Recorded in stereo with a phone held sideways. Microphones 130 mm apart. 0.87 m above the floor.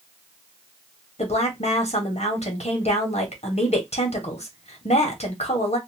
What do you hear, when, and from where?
1.2 s a woman speaking: 55° left (ahead or behind), 1.2 m